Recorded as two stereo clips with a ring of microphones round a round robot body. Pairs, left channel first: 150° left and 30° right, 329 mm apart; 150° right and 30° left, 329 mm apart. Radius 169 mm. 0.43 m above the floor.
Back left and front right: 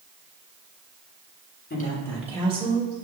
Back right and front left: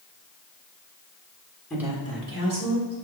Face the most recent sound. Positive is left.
turn(degrees=30)